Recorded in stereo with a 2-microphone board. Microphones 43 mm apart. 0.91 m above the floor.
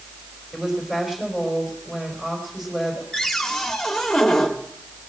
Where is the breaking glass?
No breaking glass in this recording.